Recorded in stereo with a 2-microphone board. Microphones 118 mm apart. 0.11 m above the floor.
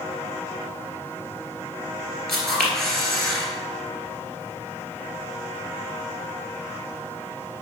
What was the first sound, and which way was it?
A camera shutter, 5° left (ahead or behind).